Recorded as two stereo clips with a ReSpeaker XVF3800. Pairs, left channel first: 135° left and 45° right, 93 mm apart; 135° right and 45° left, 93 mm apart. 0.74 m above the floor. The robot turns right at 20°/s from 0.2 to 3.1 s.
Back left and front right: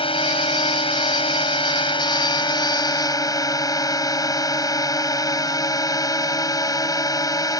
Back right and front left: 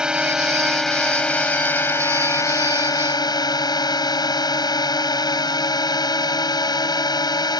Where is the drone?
125° left; by 7.6 s 175° right.